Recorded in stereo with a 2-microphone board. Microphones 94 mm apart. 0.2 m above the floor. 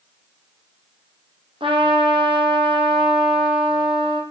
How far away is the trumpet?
About 3 m.